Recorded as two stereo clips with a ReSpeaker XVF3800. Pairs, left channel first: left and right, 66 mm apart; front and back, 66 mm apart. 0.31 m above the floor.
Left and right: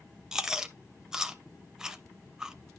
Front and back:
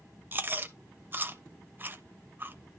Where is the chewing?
165° right, 0.6 m.